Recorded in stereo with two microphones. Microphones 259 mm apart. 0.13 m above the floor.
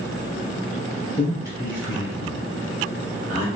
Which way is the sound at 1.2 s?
35° left (ahead or behind).